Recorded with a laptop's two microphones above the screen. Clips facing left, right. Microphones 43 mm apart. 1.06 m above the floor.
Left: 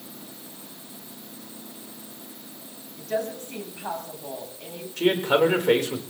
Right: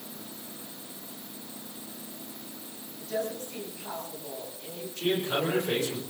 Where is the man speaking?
85° left, 4 m.